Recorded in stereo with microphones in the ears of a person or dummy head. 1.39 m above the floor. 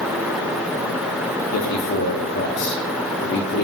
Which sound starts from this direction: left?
A man speaking, at 1.5 s.